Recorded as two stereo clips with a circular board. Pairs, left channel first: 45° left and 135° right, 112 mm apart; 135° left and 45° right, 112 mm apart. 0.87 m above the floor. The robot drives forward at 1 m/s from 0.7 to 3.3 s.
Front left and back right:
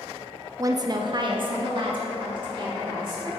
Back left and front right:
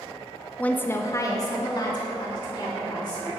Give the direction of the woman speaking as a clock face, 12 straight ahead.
5 o'clock.